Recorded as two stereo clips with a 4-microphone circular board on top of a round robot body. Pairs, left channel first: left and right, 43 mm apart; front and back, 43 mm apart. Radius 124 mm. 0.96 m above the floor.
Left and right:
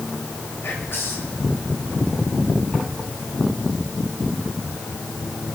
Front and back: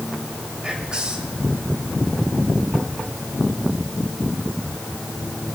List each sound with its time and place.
0.6 s whispering: 110° left, 3 m